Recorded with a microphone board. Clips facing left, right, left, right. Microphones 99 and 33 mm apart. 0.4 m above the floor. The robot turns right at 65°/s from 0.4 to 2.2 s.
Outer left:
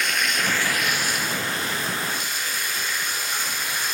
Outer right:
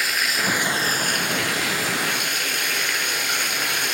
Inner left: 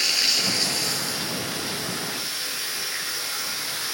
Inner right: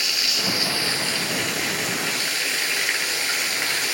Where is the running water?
175° right, 2.5 m; by 3.9 s 60° right, 2.5 m.